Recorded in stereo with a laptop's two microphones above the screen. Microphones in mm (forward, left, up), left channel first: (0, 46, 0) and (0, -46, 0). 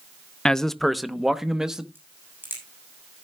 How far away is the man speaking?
About 0.5 m.